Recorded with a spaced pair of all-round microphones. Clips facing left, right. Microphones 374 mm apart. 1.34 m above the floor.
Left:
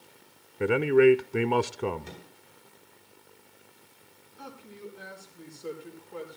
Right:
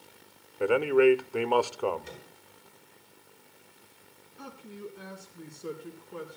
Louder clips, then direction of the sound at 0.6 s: Left 2 dB; 30° left (ahead or behind).